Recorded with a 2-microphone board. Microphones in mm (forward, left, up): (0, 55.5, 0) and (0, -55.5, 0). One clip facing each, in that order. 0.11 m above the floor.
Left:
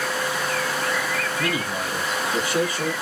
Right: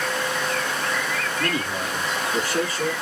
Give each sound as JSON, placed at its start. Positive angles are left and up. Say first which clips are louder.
{"t": 1.4, "sound": "a man speaking", "louder": "even", "side_deg": 10, "distance_m": 1.1}